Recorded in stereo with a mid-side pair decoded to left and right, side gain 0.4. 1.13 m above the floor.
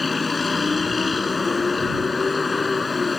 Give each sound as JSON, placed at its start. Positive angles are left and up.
{"t": 0.0, "sound": "a vehicle", "azimuth_deg": 30}